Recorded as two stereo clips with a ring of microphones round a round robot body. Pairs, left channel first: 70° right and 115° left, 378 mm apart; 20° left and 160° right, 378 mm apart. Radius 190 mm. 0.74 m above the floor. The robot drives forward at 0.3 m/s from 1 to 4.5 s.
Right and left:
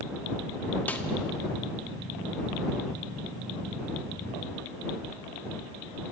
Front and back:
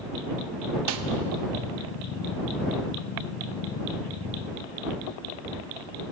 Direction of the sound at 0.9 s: 155° right.